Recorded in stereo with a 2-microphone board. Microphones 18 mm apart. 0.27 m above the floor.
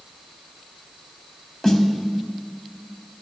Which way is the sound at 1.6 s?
25° left (ahead or behind).